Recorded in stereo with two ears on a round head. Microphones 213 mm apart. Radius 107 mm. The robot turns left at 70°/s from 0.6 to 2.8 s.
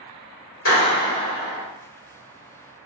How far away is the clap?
About 1.8 m.